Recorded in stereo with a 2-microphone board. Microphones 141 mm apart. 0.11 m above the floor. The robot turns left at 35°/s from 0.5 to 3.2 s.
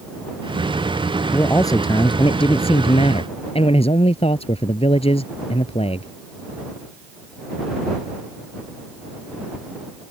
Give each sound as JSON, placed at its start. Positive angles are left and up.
{"t": 1.3, "sound": "a man speaking", "azimuth_deg": 155}